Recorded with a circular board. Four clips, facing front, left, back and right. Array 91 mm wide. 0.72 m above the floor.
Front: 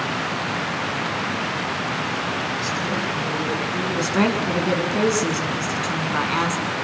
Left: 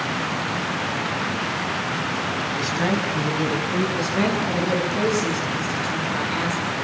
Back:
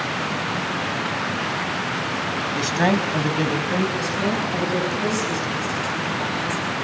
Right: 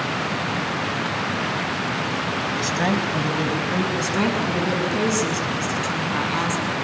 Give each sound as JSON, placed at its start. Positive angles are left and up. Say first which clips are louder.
{"t": 2.5, "sound": "a woman speaking", "louder": "right 1 dB, back 5 dB", "azimuth_deg": -165, "distance_m": 4.5}
{"t": 4.0, "sound": "a woman speaking", "louder": "even, front 3 dB", "azimuth_deg": -20, "distance_m": 8.0}